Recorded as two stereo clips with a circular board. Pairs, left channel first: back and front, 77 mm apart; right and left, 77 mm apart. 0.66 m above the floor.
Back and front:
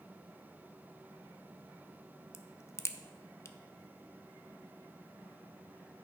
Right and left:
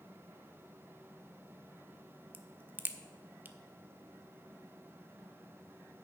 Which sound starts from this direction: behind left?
A crack, at 2.3 s.